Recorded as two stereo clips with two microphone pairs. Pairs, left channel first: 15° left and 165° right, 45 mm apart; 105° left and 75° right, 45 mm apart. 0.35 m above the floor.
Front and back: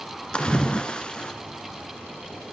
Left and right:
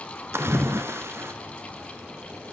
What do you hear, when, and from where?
0.3 s a splash: 55° right, 0.9 m